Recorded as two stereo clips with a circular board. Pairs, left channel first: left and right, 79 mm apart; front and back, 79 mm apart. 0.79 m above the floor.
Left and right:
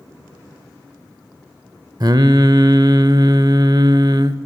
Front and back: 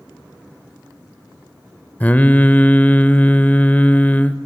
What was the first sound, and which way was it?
Singing, 70° right.